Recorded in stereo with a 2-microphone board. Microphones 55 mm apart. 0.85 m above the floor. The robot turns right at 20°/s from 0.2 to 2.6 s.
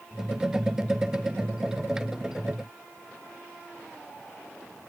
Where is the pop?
No pop in this recording.